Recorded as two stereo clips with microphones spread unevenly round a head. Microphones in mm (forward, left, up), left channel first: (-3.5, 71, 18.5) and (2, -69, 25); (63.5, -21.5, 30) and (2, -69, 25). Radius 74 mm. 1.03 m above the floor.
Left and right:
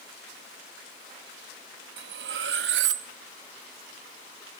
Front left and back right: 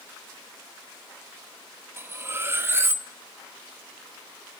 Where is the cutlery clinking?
80° right, 1.0 m.